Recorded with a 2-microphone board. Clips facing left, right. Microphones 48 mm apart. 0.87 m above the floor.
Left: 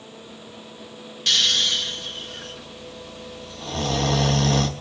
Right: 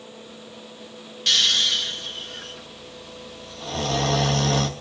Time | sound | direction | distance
1.3 | snoring | 5° right (ahead or behind) | 1.4 m